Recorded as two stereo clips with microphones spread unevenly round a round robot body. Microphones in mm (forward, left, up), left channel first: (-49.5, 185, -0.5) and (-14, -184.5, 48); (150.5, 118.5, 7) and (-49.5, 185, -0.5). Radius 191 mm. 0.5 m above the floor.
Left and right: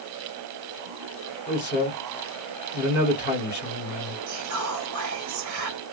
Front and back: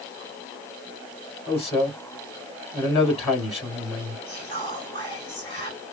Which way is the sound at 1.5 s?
45° left.